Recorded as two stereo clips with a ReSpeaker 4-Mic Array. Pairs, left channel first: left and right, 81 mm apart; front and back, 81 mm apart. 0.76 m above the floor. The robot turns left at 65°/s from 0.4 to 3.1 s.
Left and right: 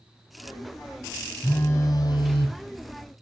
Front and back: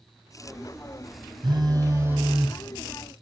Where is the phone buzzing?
160° left, 3 m; by 2.5 s 90° left, 3 m.